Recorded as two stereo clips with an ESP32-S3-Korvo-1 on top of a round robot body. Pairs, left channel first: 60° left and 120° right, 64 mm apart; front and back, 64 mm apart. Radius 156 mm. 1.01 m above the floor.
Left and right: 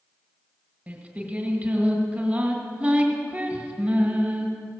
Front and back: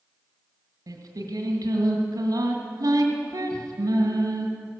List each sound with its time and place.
0.9 s singing: 170° left, 2 m